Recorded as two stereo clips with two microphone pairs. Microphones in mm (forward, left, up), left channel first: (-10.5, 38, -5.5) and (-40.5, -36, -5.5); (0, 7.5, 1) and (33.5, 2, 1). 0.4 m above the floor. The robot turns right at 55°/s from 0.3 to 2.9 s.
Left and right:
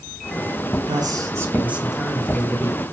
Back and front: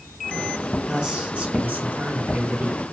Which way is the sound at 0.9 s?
85° right.